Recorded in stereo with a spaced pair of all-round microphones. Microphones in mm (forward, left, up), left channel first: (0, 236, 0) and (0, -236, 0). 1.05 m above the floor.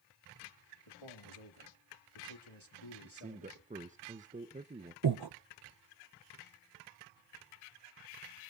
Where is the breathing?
50° right (ahead or behind), 0.6 m.